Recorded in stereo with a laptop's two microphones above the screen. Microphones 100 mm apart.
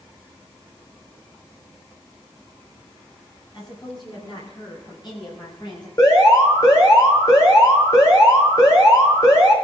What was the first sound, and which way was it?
A woman speaking, 50° left (ahead or behind).